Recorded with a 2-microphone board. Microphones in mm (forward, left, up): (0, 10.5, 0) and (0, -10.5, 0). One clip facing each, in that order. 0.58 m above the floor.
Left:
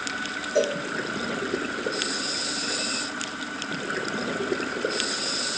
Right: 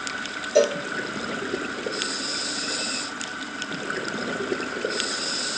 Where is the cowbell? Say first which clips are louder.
Right 5 dB; 40° right (ahead or behind), 0.9 m.